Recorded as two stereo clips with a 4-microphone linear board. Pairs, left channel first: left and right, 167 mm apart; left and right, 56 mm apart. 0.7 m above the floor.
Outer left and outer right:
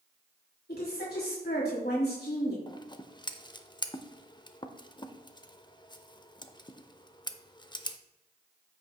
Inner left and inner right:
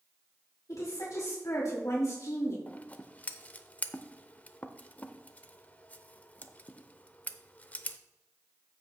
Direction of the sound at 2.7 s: 30° left (ahead or behind).